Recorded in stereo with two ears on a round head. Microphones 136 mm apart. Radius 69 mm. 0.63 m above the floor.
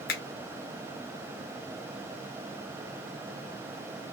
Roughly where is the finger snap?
Left.